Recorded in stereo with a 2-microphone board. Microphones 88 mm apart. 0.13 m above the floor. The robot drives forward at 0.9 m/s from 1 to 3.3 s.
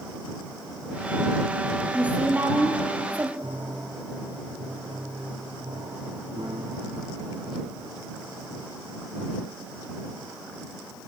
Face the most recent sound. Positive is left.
turn(degrees=-65)  # may be behind; listen again after turning